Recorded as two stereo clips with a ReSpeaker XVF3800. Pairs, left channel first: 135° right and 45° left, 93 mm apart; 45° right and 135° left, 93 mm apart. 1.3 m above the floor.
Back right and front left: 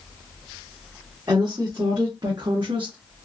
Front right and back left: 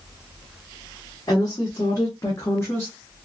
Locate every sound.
1.3 s a woman speaking: 5° right, 1.6 m; by 3.0 s 20° left, 1.0 m